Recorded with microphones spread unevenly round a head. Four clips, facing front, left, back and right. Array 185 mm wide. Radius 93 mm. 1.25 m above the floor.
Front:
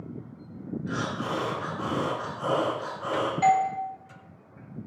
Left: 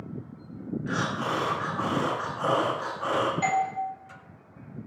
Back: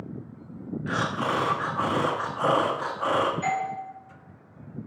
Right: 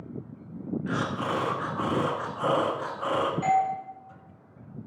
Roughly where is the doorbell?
Ahead left.